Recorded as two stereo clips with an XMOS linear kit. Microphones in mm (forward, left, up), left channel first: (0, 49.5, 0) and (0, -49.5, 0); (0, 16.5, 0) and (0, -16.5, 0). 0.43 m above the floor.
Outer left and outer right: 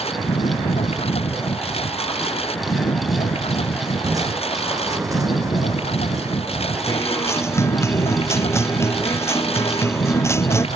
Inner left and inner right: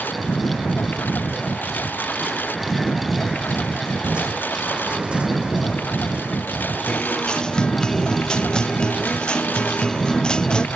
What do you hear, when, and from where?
0.0 s a lawn mower: 90° left
4.0 s crushing: 35° right (ahead or behind)
6.9 s a guitar: 25° left (ahead or behind)